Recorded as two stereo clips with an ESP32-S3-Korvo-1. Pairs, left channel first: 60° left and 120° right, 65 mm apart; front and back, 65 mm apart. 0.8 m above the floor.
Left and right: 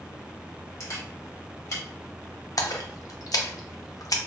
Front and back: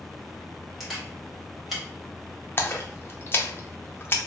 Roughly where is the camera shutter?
Left.